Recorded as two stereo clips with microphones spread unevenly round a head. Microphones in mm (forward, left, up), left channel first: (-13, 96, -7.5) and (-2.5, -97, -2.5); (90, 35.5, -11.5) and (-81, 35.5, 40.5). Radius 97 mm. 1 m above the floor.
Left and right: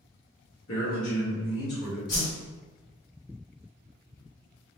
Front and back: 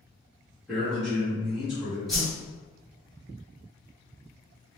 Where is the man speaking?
85° left, 1.2 m.